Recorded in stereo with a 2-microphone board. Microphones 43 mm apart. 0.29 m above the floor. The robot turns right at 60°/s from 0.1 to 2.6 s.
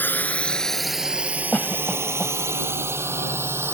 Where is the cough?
30° left (ahead or behind); by 2.3 s 5° left (ahead or behind).